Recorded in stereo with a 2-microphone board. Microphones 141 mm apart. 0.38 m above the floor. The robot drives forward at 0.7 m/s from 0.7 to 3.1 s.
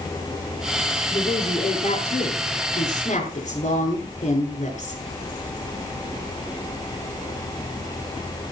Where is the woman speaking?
50° left (ahead or behind), 6.5 m; by 5.0 s 60° left (ahead or behind), 5.5 m.